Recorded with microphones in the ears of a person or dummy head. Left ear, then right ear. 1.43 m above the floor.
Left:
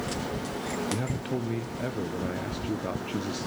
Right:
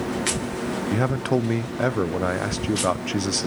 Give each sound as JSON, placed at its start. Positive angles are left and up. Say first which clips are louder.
{"t": 0.9, "sound": "a man speaking", "louder": "right 9 dB", "side_deg": -45, "distance_m": 0.6}